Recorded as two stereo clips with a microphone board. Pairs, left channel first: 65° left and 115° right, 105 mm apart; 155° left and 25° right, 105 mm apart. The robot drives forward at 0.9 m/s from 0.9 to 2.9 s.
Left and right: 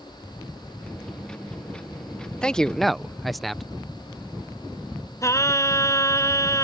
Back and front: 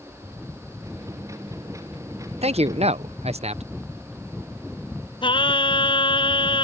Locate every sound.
2.4 s a man speaking: 15° right; by 3.6 s 20° right
5.2 s singing: 125° left